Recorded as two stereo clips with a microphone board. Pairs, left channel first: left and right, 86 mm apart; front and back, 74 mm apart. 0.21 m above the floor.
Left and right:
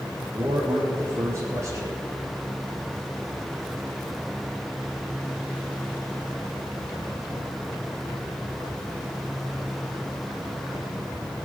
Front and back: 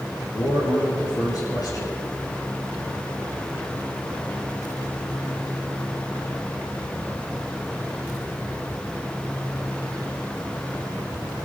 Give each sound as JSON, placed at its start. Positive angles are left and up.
{"t": 0.3, "sound": "a man speaking", "azimuth_deg": -35, "distance_m": 4.0}